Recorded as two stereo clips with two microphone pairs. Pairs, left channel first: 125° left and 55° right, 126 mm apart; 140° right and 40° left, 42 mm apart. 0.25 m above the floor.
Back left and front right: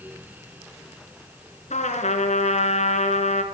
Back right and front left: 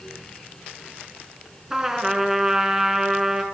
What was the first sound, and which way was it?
A trumpet, 115° left.